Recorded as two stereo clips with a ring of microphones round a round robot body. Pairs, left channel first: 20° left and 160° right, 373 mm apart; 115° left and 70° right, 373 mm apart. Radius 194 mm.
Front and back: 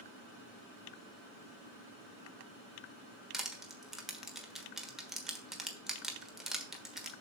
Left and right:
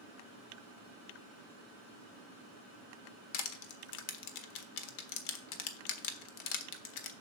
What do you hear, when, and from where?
3.3 s crushing: 115° left, 1.2 m